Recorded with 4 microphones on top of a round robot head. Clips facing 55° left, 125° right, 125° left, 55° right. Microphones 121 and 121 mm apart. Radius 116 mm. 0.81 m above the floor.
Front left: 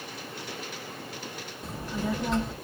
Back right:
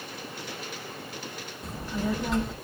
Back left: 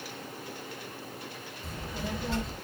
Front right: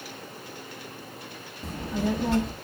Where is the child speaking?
35° right, 1.0 m.